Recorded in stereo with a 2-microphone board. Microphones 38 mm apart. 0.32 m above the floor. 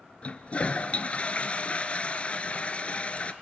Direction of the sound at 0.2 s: 35° left (ahead or behind).